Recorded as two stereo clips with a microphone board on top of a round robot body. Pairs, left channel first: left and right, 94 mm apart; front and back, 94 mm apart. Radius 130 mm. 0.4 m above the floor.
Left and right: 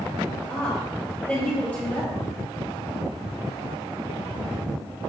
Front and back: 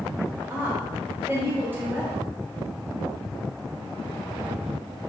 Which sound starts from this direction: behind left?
A woman speaking, at 0.5 s.